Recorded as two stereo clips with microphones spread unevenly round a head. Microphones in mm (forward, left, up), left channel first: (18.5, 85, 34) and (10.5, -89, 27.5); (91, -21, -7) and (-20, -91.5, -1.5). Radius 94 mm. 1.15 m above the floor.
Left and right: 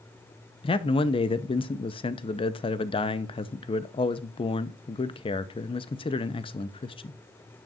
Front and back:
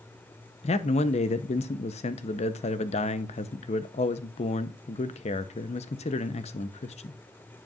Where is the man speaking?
35° left, 0.7 m.